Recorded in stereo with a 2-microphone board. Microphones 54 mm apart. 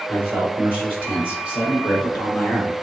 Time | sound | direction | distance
0.1 | a man speaking | 35° left (ahead or behind) | 3.5 m